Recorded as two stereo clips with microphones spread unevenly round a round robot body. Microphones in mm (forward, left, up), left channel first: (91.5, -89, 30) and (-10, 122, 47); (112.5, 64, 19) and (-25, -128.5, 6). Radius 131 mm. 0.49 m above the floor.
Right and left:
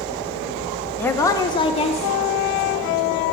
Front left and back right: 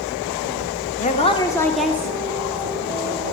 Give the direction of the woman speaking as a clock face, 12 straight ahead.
12 o'clock.